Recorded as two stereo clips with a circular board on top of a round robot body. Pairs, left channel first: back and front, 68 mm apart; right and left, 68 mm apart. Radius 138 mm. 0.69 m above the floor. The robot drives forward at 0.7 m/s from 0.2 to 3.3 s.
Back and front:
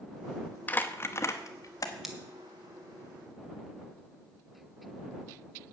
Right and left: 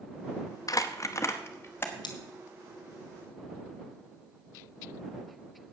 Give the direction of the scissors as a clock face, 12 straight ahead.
3 o'clock.